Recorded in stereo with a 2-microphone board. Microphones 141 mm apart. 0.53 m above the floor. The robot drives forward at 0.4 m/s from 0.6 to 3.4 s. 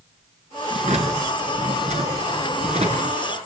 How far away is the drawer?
About 5 m.